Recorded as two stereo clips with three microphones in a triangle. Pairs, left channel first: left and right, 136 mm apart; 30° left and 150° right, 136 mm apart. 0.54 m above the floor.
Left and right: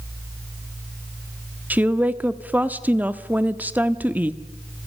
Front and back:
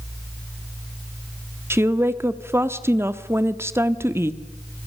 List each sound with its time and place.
1.7 s a woman speaking: 140° right, 1.0 m